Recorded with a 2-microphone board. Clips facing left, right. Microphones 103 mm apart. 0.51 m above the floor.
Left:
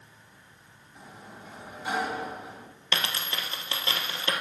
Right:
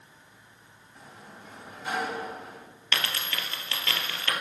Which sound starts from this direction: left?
A dropped coin, at 2.9 s.